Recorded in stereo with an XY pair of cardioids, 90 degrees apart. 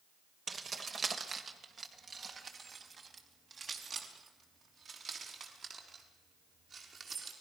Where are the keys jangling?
45° right, 2.5 m; by 7.3 s 55° right, 7.5 m.